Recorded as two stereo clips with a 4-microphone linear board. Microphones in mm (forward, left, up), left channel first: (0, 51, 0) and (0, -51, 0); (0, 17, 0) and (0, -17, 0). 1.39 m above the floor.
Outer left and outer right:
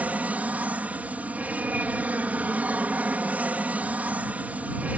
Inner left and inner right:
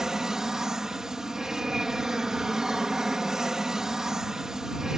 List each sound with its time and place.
0.0 s an aircraft: 15° right (ahead or behind)